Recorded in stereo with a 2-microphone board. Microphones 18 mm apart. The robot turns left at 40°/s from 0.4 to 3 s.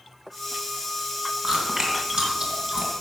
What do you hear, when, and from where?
1.4 s chewing: 35° right (ahead or behind), 2.5 m; by 2.9 s 60° right (ahead or behind), 2.5 m